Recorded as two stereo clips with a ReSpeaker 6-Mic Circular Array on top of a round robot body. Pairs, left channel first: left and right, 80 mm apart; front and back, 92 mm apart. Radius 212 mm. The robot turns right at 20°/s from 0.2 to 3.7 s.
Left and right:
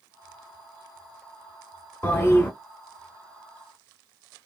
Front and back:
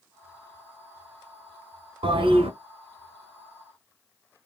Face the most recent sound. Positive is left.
turn(degrees=-175)